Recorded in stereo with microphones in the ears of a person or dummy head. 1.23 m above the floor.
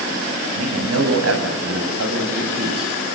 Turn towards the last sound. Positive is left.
turn(degrees=-70)  # may be behind; listen again after turning